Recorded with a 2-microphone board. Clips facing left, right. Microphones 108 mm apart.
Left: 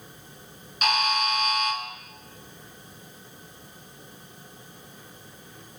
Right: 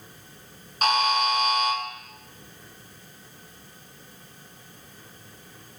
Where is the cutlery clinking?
I don't hear cutlery clinking.